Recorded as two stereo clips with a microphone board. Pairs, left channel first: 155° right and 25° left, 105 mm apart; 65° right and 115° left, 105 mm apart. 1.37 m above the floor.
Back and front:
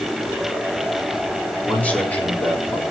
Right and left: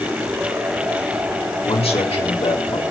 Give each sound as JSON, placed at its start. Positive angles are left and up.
{"t": 1.6, "sound": "a man speaking", "azimuth_deg": -85, "distance_m": 4.0}